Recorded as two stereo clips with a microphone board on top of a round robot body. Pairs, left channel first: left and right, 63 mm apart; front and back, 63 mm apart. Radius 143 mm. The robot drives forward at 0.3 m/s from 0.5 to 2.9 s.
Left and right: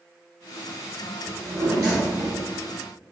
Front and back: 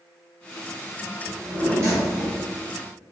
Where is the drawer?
130° right, 1.2 m; by 2.5 s 145° right, 1.4 m.